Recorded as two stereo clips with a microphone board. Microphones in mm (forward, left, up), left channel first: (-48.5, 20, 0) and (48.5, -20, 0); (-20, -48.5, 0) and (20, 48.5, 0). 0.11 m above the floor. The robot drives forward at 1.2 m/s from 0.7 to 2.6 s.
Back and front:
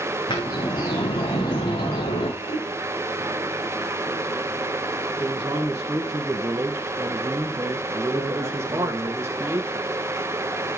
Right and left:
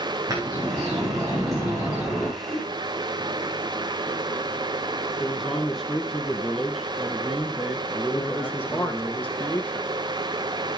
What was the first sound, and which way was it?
A bird, 120° left.